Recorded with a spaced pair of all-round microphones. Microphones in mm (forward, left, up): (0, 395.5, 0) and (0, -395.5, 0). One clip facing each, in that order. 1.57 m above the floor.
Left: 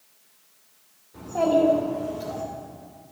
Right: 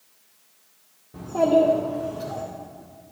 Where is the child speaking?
70° right (ahead or behind), 1.4 m; by 2.4 s 40° right (ahead or behind), 2.5 m.